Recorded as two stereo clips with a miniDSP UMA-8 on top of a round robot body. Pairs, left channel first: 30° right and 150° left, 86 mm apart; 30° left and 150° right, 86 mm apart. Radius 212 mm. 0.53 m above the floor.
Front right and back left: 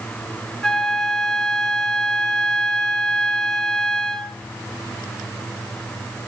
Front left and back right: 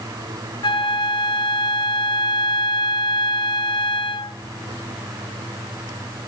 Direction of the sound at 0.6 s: 55° left.